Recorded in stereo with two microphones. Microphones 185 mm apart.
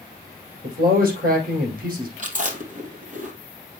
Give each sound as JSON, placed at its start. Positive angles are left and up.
{"t": 0.6, "sound": "a man speaking", "side_deg": -50, "distance_m": 4.0}
{"t": 2.2, "sound": "chewing", "side_deg": -45, "distance_m": 2.5}